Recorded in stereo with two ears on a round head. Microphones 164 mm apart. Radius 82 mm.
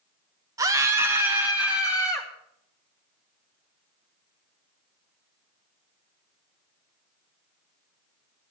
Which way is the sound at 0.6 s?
20° right (ahead or behind).